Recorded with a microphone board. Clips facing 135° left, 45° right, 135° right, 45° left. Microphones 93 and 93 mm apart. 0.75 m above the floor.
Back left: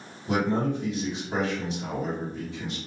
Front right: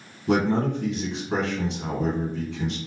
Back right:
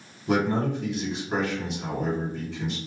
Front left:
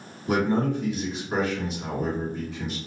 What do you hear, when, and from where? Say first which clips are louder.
0.3 s a man speaking: front right 3 dB, front left 1 dB; 50° right, 1.5 m